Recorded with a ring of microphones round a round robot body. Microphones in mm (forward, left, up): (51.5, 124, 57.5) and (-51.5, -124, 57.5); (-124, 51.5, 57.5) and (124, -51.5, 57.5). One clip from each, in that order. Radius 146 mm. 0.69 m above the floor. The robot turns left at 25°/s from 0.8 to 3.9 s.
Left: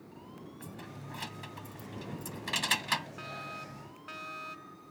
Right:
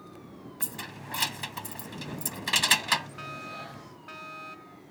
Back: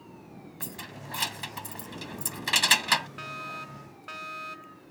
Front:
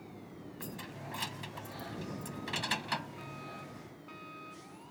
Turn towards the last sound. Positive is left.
turn(degrees=145)